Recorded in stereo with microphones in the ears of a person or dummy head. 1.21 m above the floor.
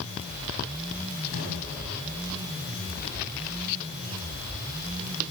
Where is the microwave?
70° left (ahead or behind), 8 m.